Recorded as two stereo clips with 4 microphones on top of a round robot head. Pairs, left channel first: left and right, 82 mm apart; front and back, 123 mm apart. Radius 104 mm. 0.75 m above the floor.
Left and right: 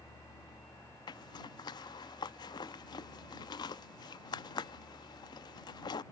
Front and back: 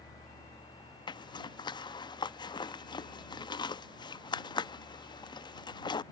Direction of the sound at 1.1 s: 55° left.